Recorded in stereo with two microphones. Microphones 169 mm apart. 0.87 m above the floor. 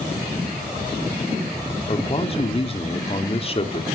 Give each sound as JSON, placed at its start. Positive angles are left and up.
{"t": 1.9, "sound": "a man speaking", "side_deg": 35, "distance_m": 3.0}